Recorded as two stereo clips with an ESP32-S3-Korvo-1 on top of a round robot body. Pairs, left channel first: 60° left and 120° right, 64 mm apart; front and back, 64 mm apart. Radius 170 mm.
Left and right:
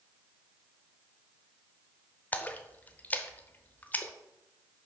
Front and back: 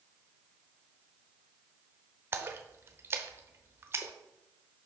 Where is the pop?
No pop in this recording.